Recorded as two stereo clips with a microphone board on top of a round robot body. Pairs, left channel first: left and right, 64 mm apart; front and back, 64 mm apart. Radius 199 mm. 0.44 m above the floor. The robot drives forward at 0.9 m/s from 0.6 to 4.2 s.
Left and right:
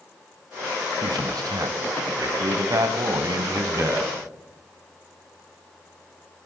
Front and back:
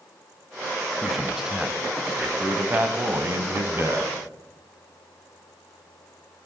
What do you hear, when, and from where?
1.0 s a man speaking: 95° right, 3.5 m; by 4.1 s 135° right, 4.5 m